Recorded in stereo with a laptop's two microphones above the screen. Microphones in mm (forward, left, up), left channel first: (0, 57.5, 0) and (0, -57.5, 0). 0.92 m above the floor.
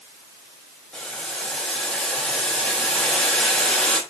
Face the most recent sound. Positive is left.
turn(degrees=5)  # may be behind; listen again after turning